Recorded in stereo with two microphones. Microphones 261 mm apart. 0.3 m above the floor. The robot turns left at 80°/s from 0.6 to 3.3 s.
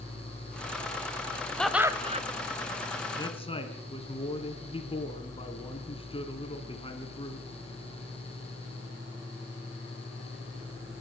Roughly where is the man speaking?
Centre.